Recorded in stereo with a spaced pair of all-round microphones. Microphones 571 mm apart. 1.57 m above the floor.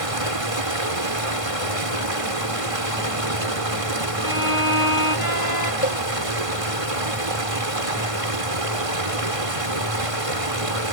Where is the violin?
35° right (ahead or behind).